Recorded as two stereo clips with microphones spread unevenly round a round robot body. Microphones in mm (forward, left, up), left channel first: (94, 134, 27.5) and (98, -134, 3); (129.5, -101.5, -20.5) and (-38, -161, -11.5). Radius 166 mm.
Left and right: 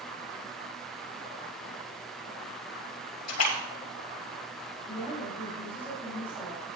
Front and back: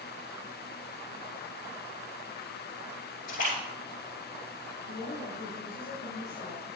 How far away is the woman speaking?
About 6.5 m.